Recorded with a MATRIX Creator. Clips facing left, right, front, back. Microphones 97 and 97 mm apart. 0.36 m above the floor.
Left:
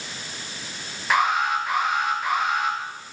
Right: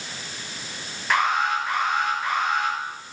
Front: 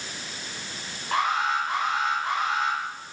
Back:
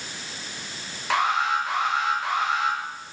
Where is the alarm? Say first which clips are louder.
Left 1 dB, back 2 dB; 175° left, 9 m.